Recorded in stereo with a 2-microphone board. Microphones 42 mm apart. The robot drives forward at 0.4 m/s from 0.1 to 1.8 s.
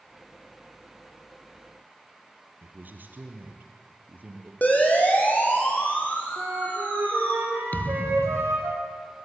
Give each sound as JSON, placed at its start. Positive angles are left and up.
{"t": 2.6, "sound": "a man speaking", "side_deg": -40, "distance_m": 3.5}
{"t": 4.6, "sound": "a siren", "side_deg": 35, "distance_m": 6.5}
{"t": 6.4, "sound": "a flute", "side_deg": -75, "distance_m": 6.5}
{"t": 7.7, "sound": "a thud", "side_deg": 40, "distance_m": 1.2}